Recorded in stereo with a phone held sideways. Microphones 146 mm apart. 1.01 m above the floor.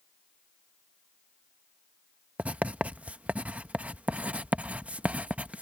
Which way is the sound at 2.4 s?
10° right (ahead or behind).